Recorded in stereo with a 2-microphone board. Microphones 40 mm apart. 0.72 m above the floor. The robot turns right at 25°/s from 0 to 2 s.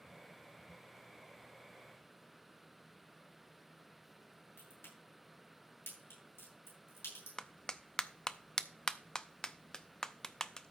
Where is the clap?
15° left (ahead or behind), 0.5 m.